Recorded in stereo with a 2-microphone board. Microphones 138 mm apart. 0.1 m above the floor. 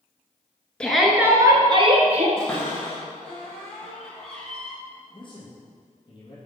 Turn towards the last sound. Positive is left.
turn(degrees=40)  # may be behind; listen again after turning